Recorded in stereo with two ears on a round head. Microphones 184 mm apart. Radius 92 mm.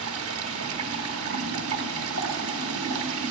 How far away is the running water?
About 1.1 m.